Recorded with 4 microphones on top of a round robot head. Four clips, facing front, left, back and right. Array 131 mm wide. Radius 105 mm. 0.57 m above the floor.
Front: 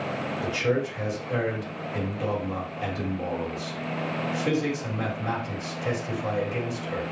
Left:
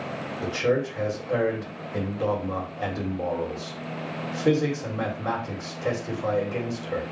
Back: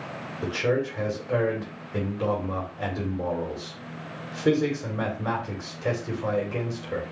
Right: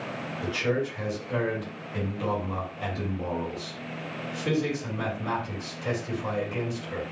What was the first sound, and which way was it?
A man speaking, 135° left.